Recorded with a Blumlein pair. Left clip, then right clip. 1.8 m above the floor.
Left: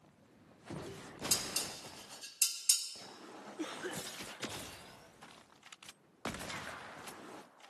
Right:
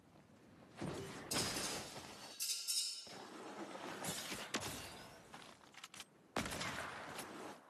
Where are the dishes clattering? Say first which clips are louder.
Left 3 dB; 40° left, 3 m.